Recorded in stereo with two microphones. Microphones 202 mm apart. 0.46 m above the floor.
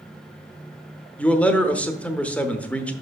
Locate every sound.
1.2 s a man speaking: 5° left (ahead or behind), 0.9 m